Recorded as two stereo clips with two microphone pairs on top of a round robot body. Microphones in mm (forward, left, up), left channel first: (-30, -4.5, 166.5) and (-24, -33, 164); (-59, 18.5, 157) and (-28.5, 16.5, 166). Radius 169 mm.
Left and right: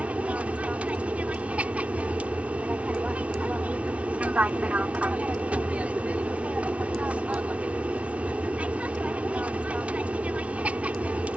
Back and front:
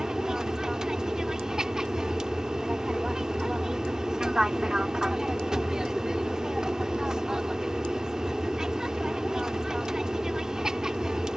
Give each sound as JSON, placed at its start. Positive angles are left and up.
{"t": 0.0, "sound": "an aircraft", "azimuth_deg": -80}